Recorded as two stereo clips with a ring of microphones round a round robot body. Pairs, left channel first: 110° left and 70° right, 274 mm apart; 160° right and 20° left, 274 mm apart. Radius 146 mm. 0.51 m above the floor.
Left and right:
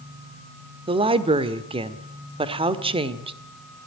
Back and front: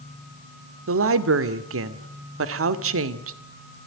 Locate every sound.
0.9 s a woman speaking: straight ahead, 1.5 m